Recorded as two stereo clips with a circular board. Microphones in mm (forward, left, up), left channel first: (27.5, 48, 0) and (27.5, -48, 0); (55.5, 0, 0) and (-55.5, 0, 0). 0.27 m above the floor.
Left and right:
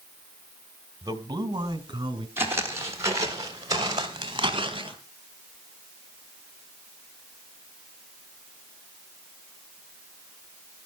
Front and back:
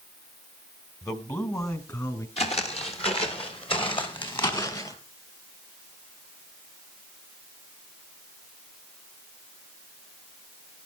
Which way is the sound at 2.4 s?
25° right.